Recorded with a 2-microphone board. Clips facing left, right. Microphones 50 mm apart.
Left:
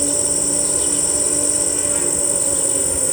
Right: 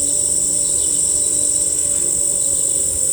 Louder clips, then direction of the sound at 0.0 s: Left 6 dB; 50° left (ahead or behind).